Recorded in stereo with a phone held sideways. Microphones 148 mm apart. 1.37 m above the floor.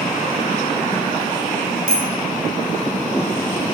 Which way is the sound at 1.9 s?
80° right.